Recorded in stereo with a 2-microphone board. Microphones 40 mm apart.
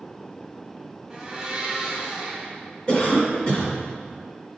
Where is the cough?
30° left (ahead or behind), 1.7 m.